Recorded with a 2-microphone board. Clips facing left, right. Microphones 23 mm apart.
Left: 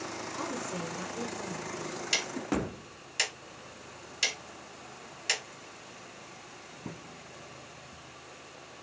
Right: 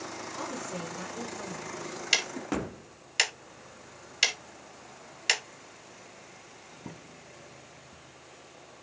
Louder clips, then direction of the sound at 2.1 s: Right 3 dB; 30° right (ahead or behind).